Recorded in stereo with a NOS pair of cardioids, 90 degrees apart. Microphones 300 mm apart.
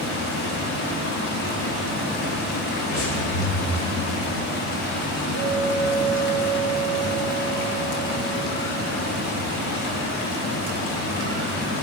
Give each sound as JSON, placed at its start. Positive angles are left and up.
{"t": 0.0, "sound": "running water", "azimuth_deg": 65, "distance_m": 2.0}
{"t": 2.9, "sound": "breathing", "azimuth_deg": 65, "distance_m": 3.0}
{"t": 5.3, "sound": "a clink", "azimuth_deg": 70, "distance_m": 3.0}